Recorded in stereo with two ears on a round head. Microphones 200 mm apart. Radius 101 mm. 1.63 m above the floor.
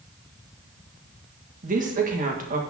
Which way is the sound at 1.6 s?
40° right (ahead or behind).